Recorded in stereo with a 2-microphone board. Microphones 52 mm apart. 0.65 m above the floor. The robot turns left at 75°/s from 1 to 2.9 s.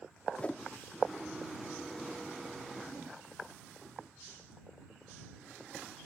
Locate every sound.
0.4 s a whoosh: 25° left (ahead or behind)